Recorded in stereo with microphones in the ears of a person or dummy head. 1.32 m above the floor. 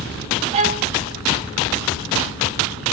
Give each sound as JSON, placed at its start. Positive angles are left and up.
{"t": 0.5, "sound": "a violin", "side_deg": -35, "distance_m": 0.9}